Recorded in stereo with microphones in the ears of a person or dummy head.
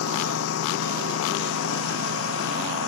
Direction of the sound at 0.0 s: 85° left.